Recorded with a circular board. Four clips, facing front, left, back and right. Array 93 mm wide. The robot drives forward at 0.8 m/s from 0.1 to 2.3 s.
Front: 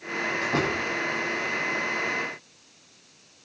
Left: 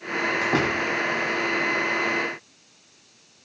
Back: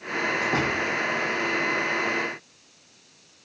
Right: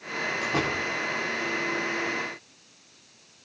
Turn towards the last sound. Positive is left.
turn(degrees=110)